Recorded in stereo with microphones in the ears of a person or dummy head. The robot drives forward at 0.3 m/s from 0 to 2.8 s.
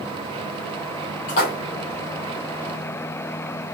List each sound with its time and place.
1.3 s a splash: 45° left (ahead or behind), 1.0 m